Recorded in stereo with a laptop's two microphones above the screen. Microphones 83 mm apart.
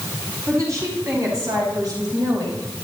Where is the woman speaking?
45° right (ahead or behind), 6 m; by 2.6 s 60° right (ahead or behind), 4 m.